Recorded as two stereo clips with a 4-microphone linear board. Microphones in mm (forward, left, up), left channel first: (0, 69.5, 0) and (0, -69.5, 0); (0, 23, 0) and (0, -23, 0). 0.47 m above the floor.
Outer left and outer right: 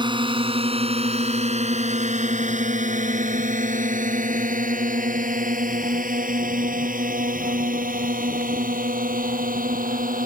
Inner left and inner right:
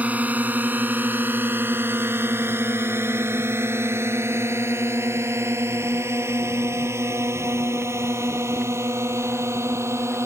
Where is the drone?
35° right (ahead or behind); by 10.3 s 85° right.